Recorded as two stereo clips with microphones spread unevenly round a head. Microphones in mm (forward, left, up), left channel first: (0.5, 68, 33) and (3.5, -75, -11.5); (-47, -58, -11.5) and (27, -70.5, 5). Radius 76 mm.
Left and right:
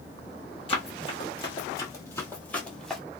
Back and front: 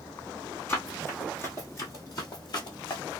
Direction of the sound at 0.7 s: 90° left.